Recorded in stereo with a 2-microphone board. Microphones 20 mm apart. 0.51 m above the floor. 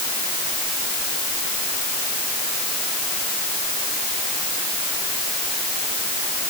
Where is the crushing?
I don't hear crushing.